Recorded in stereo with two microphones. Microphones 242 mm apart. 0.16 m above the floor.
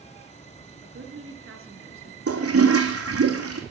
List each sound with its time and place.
0.8 s a woman speaking: 60° right (ahead or behind), 2.5 m
2.3 s a toilet flushing: 70° right (ahead or behind), 2 m